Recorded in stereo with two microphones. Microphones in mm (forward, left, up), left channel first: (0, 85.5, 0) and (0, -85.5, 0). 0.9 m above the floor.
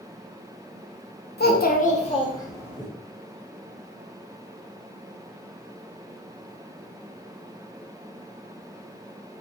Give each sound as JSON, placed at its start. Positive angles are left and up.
{"t": 1.4, "sound": "a child speaking", "side_deg": 70, "distance_m": 0.5}